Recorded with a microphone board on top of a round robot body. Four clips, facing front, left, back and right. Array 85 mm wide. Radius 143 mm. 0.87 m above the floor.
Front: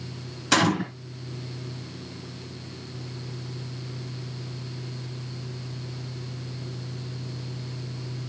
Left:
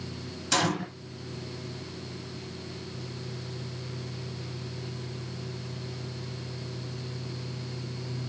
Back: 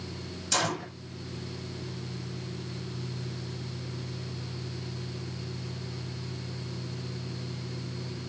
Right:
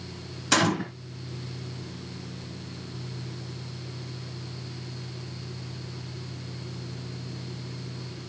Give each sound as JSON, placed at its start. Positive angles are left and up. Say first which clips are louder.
{"t": 0.5, "sound": "a gunshot", "louder": "right 4 dB, front 8 dB", "azimuth_deg": -30, "distance_m": 3.5}